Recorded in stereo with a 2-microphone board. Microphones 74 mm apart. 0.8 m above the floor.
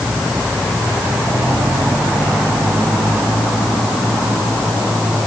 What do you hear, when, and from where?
Only background noise.